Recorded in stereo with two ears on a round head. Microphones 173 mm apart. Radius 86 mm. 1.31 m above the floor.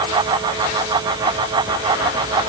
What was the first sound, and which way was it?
Only background noise.